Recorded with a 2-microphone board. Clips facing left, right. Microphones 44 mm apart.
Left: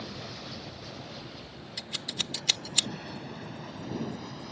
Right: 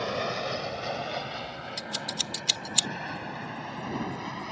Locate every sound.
0.0 s an aircraft: 60° right (ahead or behind); by 4.5 s 70° right (ahead or behind)
1.8 s scissors: 10° left (ahead or behind)